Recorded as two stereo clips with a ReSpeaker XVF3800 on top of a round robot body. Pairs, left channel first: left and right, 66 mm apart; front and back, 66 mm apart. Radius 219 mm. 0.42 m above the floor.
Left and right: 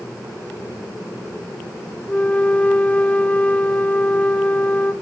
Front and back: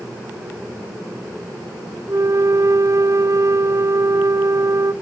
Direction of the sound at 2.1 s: 155° left.